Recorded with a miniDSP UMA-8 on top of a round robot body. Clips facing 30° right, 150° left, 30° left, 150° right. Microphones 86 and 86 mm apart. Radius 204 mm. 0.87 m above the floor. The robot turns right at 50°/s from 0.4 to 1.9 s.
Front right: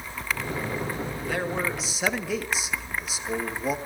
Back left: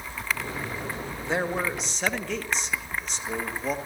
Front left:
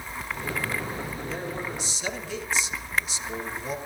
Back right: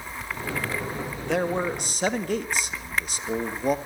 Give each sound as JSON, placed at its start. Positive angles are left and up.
{"t": 1.2, "sound": "a man speaking", "azimuth_deg": -150, "distance_m": 2.0}